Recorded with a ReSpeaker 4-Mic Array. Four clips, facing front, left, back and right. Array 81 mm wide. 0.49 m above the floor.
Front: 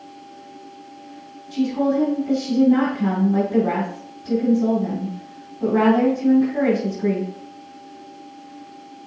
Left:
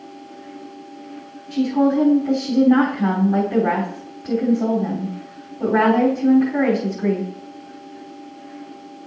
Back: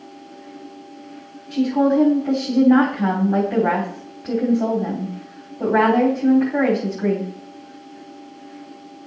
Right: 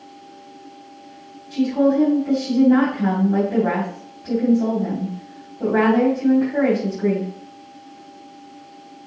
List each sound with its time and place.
1.5 s a woman speaking: 170° left, 4 m